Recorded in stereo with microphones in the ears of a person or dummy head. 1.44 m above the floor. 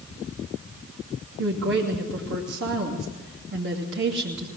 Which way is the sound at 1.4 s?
65° right (ahead or behind).